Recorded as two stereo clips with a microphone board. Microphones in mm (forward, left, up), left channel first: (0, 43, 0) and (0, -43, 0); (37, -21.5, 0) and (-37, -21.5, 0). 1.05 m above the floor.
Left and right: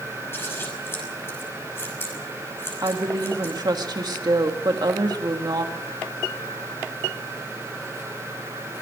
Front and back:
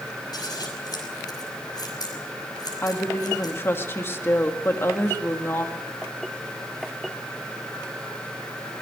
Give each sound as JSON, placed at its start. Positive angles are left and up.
{"t": 0.3, "sound": "scissors", "azimuth_deg": 30, "distance_m": 5.5}
{"t": 2.8, "sound": "a woman speaking", "azimuth_deg": -55, "distance_m": 2.0}